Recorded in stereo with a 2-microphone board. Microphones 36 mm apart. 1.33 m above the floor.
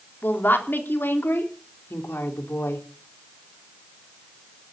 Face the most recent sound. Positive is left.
turn(degrees=80)